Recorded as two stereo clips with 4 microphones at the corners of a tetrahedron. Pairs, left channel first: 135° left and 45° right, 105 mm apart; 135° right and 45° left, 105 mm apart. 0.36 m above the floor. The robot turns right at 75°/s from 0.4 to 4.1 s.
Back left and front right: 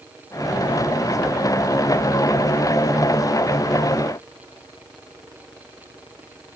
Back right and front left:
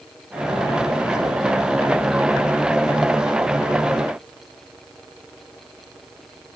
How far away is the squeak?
I don't hear a squeak.